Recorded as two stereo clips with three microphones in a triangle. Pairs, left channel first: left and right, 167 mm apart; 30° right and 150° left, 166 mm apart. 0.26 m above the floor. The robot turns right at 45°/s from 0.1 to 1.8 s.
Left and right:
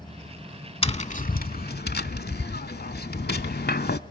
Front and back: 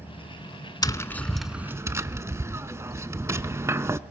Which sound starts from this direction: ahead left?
Tapping, at 0.8 s.